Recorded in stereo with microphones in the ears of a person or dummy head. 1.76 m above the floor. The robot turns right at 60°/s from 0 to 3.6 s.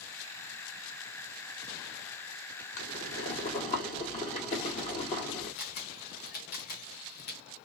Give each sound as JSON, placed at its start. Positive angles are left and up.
{"t": 2.8, "sound": "boiling", "azimuth_deg": 85, "distance_m": 1.8}
{"t": 5.6, "sound": "a camera shutter", "side_deg": 50, "distance_m": 1.2}